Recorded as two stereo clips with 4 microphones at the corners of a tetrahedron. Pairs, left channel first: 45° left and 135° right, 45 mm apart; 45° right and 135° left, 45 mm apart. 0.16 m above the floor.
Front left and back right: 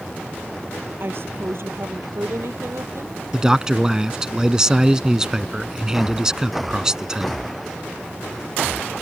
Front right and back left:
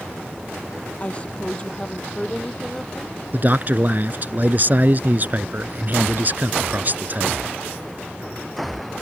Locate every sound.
1.0 s a woman speaking: 105° right; by 3.2 s 130° right
3.3 s a man speaking: 155° left